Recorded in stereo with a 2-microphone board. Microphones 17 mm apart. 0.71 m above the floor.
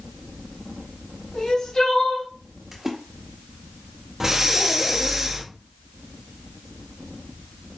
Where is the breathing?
25° right (ahead or behind), 0.8 m.